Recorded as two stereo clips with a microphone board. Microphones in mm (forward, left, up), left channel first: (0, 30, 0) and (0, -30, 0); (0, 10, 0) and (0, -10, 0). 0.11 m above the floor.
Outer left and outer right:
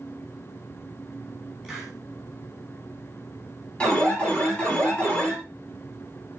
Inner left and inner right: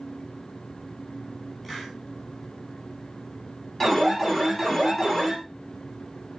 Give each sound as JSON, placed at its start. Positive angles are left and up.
{"t": 1.6, "sound": "a hiss", "side_deg": 0, "distance_m": 5.0}
{"t": 3.8, "sound": "an alarm", "side_deg": 20, "distance_m": 2.5}